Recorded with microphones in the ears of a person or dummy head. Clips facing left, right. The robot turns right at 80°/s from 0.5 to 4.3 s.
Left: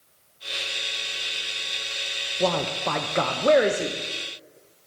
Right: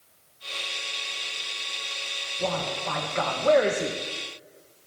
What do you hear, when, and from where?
2.4 s a man speaking: 65° left, 0.5 m; by 4.0 s 170° right, 0.5 m